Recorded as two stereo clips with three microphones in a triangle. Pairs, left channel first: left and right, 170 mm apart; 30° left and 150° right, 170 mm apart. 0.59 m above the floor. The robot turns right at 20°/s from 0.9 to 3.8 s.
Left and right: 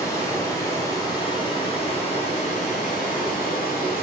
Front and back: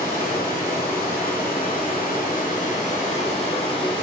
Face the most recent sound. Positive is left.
turn(degrees=80)